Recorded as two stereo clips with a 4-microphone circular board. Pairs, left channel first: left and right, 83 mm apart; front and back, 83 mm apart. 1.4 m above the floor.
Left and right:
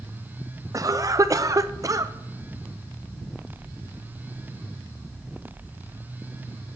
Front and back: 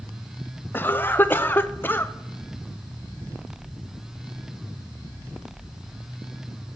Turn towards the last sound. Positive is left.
turn(degrees=-60)